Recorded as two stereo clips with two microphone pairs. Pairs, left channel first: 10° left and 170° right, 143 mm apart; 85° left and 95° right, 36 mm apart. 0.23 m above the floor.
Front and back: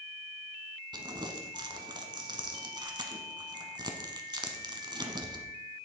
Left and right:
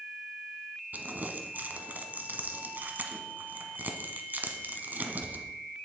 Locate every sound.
0.9 s crumpling: 115° right, 1.1 m